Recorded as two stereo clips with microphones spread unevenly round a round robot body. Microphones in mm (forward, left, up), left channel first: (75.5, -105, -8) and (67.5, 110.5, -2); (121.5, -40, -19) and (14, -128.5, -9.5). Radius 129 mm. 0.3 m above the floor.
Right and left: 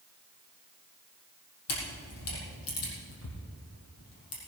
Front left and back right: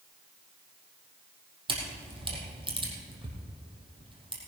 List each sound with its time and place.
1.7 s a camera shutter: 85° right, 4.5 m